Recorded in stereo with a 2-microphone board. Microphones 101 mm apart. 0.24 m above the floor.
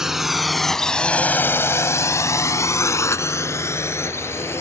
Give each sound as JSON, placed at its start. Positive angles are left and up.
{"t": 0.0, "sound": "a drone", "side_deg": -5}